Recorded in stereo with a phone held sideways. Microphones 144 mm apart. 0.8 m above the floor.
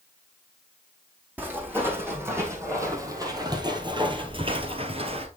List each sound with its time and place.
1.4 s footsteps: 15° right (ahead or behind), 2 m; by 5.3 s 45° right (ahead or behind), 1.0 m